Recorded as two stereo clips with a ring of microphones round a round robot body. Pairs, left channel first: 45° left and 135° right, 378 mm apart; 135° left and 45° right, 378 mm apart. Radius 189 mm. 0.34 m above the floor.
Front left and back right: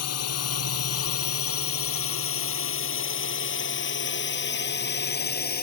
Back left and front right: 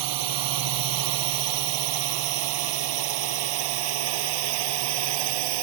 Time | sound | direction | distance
0.0 | a drone | 5° right | ?